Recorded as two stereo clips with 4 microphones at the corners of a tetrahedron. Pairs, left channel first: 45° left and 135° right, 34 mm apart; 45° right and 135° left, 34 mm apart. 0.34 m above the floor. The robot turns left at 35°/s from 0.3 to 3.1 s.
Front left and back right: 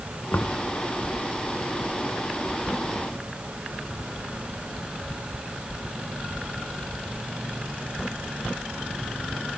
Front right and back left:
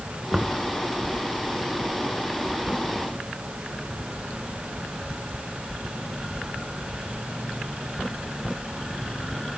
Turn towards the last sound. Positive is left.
turn(degrees=-40)